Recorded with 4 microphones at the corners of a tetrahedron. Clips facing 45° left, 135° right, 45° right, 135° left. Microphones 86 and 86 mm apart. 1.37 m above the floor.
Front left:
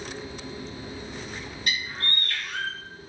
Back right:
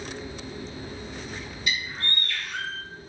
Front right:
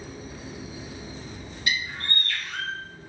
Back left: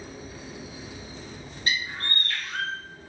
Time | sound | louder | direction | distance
1.7 | a bird | even, even | 80° left | 0.7 m